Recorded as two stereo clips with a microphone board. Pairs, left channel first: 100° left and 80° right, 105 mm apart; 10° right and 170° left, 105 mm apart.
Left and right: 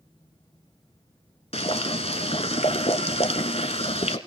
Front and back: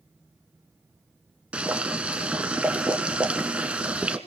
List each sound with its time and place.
1.5 s boiling: 90° left, 1.4 m